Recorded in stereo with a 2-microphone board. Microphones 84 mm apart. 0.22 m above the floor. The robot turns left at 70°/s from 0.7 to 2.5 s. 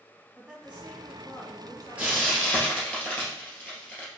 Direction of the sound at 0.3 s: 160° right.